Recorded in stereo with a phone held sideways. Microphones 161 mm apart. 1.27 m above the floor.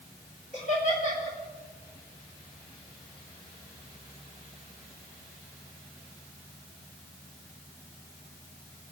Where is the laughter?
50° left (ahead or behind), 4.5 m.